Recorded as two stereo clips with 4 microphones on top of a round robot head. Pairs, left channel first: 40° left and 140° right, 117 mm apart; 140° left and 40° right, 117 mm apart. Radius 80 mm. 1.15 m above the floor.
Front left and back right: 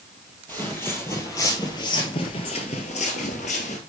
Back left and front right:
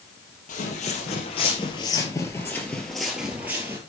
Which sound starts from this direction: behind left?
Footsteps, at 0.5 s.